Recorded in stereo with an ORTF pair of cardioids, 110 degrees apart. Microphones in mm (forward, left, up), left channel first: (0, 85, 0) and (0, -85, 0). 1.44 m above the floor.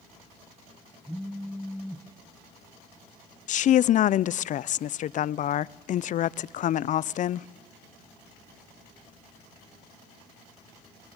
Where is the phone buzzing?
5° right, 1.1 m.